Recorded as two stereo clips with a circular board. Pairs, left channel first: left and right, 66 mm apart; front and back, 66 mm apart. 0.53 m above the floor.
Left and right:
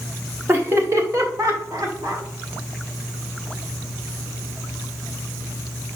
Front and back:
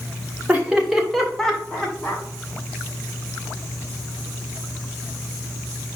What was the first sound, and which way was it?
Laughter, 125° right.